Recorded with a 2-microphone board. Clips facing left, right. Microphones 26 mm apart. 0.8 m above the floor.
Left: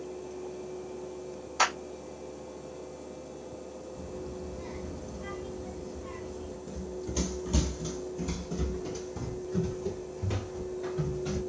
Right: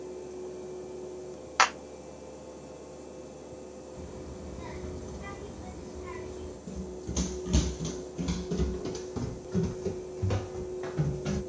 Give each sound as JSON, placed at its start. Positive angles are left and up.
{"t": 1.6, "sound": "a clap", "side_deg": -55, "distance_m": 0.9}
{"t": 3.9, "sound": "a child speaking", "side_deg": -60, "distance_m": 2.5}
{"t": 6.7, "sound": "running footsteps", "side_deg": 5, "distance_m": 0.9}